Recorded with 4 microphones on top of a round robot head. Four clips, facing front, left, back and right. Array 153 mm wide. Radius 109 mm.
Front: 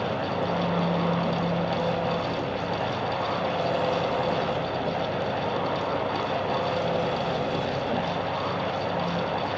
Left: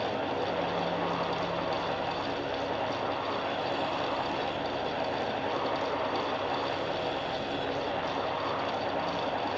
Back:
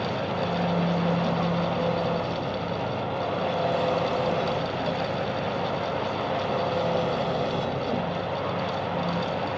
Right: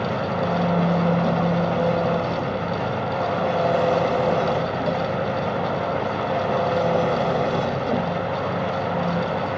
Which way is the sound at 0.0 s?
95° right.